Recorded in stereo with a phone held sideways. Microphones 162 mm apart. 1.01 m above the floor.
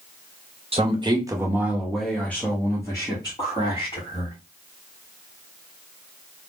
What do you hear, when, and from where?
0.7 s a man speaking: 35° right (ahead or behind), 0.8 m; by 4.4 s 35° left (ahead or behind), 1.7 m